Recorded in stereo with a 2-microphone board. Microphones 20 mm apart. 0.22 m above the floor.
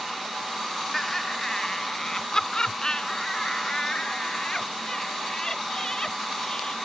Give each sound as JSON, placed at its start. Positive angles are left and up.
{"t": 0.9, "sound": "laughter", "side_deg": 15}